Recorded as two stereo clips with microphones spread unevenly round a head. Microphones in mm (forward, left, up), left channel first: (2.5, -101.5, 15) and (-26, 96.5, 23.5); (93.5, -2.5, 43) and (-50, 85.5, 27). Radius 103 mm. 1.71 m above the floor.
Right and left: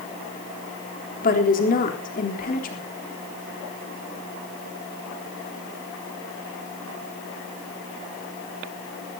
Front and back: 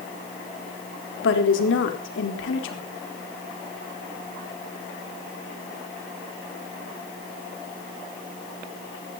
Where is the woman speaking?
30° right, 3.5 m.